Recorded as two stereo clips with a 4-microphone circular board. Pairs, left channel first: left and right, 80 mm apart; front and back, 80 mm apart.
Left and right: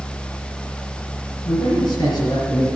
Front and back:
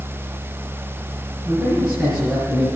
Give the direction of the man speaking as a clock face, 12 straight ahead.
8 o'clock.